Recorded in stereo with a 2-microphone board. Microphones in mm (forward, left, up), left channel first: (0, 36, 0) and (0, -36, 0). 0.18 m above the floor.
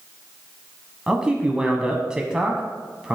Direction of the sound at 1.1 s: 10° right (ahead or behind).